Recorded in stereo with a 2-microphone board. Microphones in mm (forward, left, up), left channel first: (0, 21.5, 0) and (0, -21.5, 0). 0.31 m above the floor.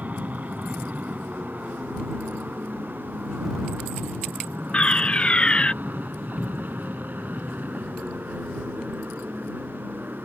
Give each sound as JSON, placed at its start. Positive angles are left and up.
{"t": 0.0, "sound": "an aircraft", "side_deg": -35}
{"t": 4.7, "sound": "a fire alarm", "side_deg": 25}
{"t": 6.4, "sound": "a cupboard door", "side_deg": -10}